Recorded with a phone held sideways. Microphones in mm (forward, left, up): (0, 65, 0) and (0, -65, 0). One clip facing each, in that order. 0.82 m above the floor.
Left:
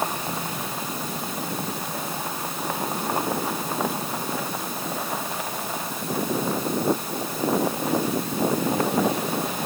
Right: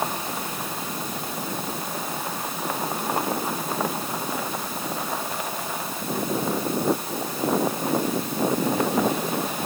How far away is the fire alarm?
No fire alarm in this recording.